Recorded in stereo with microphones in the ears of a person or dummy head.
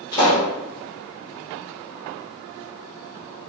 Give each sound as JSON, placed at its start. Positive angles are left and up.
{"t": 0.1, "sound": "a pop", "side_deg": 20, "distance_m": 1.3}